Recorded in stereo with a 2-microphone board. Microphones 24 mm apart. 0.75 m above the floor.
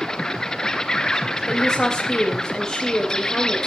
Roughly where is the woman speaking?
Left.